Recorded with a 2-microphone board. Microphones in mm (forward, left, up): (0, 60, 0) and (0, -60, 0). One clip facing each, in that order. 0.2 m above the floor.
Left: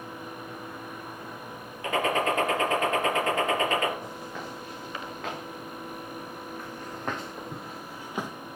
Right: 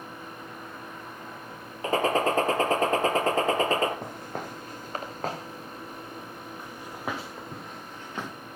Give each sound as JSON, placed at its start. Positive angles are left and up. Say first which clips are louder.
{"t": 1.8, "sound": "a gunshot", "louder": "right 2 dB", "side_deg": -35, "distance_m": 2.5}
{"t": 4.0, "sound": "footsteps", "louder": "right 2 dB", "side_deg": -55, "distance_m": 3.0}